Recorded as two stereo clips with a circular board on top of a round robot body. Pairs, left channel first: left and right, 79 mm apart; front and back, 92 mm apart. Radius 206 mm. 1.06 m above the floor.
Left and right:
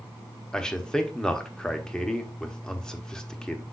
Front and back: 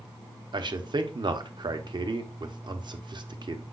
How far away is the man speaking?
About 0.9 m.